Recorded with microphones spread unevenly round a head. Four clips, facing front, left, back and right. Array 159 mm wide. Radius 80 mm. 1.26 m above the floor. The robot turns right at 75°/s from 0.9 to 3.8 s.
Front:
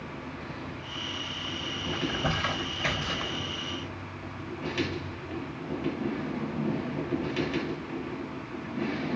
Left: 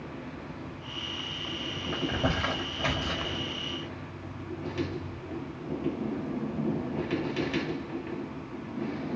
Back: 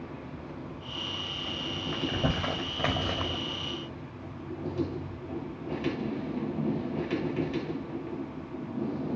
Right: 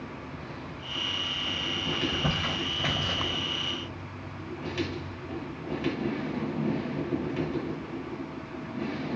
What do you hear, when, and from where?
1.9 s crumpling: 105° left, 1.8 m; by 3.4 s 140° right, 1.8 m